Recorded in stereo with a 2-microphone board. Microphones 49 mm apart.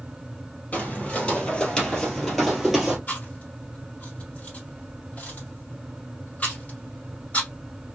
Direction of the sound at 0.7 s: 25° left (ahead or behind).